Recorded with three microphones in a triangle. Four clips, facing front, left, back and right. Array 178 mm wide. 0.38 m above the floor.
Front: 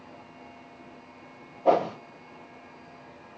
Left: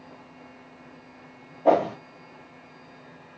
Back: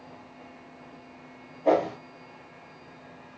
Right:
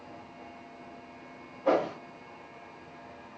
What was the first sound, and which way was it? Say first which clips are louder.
A whoosh: left 6 dB, front 1 dB; 80° left.